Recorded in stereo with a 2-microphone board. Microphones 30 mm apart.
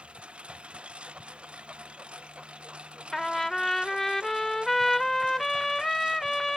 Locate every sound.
0.0 s a lawn mower: 40° right (ahead or behind); by 6.6 s 35° right (ahead or behind)
3.1 s a trumpet: 10° left (ahead or behind)